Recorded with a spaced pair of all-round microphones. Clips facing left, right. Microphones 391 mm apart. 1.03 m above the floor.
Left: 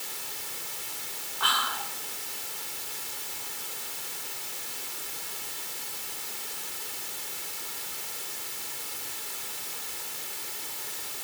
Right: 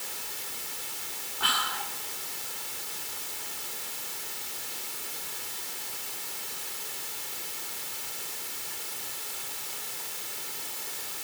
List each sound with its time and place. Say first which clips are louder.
1.4 s whispering: left 1 dB; 40° right (ahead or behind), 3 m